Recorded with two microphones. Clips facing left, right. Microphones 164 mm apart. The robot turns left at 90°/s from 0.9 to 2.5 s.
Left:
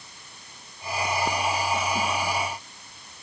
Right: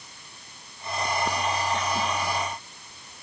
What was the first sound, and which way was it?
Only background noise.